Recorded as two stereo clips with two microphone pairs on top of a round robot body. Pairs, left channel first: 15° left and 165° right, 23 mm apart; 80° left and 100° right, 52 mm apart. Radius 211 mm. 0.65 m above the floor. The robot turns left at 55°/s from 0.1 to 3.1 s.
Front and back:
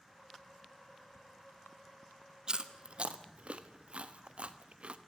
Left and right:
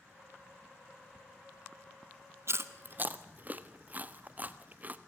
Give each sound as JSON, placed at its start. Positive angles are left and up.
{"t": 2.5, "sound": "chewing", "azimuth_deg": -115, "distance_m": 1.5}